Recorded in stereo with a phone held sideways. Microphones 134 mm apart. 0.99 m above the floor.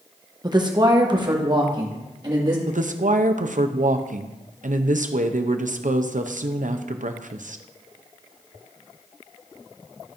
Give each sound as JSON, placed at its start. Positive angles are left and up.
{"t": 0.4, "sound": "a woman speaking", "side_deg": -30, "distance_m": 0.9}
{"t": 2.7, "sound": "a woman speaking", "side_deg": -70, "distance_m": 0.6}